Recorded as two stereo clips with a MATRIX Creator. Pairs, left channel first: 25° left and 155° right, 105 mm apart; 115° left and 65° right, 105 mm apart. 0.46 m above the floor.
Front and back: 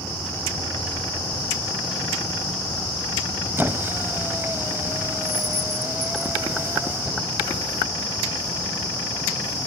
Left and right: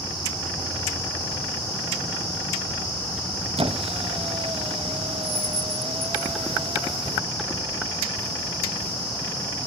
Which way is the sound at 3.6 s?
90° right.